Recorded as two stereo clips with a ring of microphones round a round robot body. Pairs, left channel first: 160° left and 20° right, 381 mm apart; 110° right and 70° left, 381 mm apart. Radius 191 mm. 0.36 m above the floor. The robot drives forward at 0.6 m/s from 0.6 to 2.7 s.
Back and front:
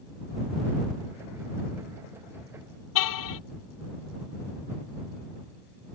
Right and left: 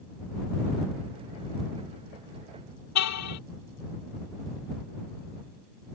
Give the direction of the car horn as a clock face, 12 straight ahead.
5 o'clock.